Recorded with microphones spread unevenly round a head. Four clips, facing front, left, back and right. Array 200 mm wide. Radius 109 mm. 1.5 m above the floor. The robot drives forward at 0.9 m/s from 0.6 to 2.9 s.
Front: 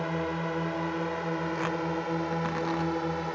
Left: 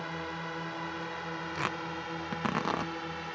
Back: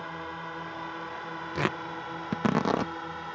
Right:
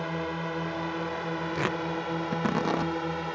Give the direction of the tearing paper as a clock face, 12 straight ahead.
5 o'clock.